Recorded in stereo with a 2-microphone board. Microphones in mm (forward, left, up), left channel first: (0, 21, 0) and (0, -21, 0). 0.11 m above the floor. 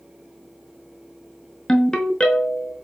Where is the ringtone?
20° left (ahead or behind), 0.5 m.